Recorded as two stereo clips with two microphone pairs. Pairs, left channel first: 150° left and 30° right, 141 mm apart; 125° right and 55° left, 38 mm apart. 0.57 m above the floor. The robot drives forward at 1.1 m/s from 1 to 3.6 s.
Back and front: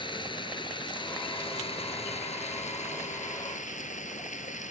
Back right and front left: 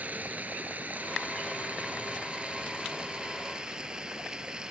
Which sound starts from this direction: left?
Running water, at 0.0 s.